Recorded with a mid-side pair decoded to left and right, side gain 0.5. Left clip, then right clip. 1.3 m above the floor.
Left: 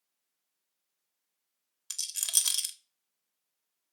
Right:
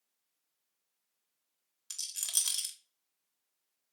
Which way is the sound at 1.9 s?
35° left.